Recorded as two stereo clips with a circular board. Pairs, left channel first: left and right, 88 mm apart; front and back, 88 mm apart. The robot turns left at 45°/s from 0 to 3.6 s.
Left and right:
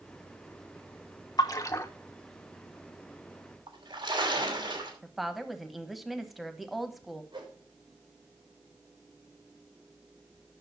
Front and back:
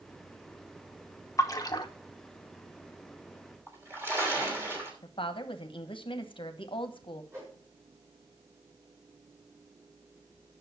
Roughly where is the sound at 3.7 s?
Behind right.